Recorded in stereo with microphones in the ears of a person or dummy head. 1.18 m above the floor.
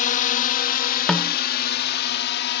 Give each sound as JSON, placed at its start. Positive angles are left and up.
{"t": 0.0, "sound": "a drone", "side_deg": 45}
{"t": 1.1, "sound": "a snare drum", "side_deg": 0}